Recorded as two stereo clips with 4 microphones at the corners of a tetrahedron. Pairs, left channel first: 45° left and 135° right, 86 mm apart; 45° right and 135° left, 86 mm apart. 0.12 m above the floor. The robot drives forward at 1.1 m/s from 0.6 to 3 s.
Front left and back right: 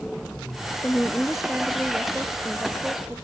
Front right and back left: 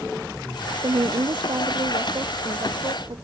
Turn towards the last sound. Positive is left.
turn(degrees=160)